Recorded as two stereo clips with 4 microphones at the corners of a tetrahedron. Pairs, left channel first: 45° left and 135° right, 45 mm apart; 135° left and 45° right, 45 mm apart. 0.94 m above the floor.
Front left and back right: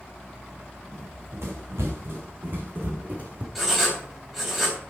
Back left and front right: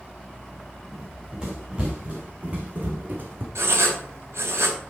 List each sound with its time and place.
0.9 s running footsteps: 120° right, 3.5 m; by 3.5 s 85° right, 2.5 m
3.5 s writing: 50° right, 3.5 m